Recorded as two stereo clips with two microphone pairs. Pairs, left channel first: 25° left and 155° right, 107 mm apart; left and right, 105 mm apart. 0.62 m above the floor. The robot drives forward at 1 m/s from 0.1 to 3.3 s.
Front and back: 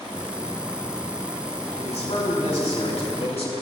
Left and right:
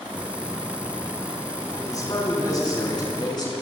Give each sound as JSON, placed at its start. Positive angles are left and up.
{"t": 1.8, "sound": "a man speaking", "azimuth_deg": 35, "distance_m": 8.5}